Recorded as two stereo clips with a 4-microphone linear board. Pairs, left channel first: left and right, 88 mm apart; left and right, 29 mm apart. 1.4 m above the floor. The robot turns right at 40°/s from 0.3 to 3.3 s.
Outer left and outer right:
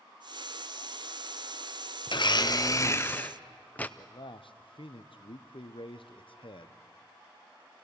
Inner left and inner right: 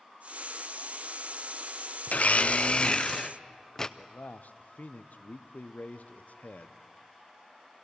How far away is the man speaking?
About 0.7 m.